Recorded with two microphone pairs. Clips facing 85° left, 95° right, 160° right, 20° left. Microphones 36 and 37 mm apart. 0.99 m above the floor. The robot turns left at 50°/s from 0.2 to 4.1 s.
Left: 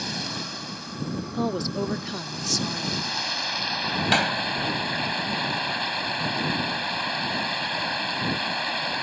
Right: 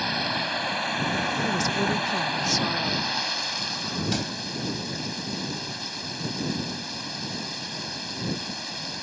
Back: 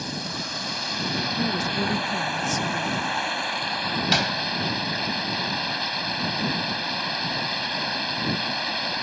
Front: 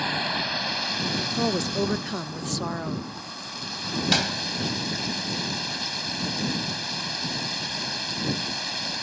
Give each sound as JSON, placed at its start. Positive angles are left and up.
{"t": 0.0, "sound": "running water", "azimuth_deg": -30}
{"t": 1.3, "sound": "a woman speaking", "azimuth_deg": 45}
{"t": 4.1, "sound": "a door slam", "azimuth_deg": 120}